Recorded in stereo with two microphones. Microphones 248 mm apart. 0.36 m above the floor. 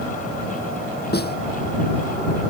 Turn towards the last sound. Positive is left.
turn(degrees=40)  # may be behind; listen again after turning